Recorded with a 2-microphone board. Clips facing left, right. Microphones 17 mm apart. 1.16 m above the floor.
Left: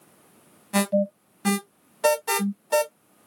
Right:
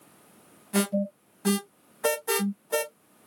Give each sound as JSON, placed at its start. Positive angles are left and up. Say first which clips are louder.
{"t": 0.7, "sound": "an alarm", "louder": "left 4 dB", "side_deg": 45, "distance_m": 1.3}